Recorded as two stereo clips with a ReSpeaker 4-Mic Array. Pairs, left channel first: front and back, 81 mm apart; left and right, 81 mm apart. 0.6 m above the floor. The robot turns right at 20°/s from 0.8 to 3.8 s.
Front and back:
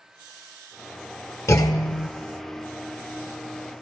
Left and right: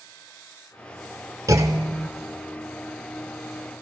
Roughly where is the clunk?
Ahead right.